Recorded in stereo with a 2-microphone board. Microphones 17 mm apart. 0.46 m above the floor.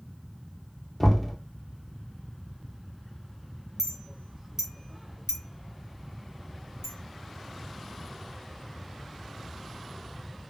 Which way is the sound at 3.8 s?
35° right (ahead or behind).